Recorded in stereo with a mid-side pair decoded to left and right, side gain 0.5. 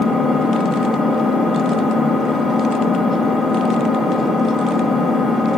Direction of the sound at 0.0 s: 10° left.